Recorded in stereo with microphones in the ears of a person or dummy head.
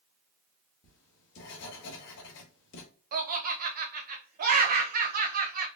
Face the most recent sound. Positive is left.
turn(degrees=-50)  # may be behind; listen again after turning